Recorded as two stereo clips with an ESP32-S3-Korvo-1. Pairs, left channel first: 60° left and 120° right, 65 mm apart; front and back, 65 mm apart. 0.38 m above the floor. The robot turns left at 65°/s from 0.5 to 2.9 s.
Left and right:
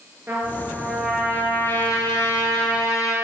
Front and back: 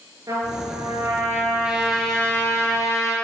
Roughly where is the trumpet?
Behind.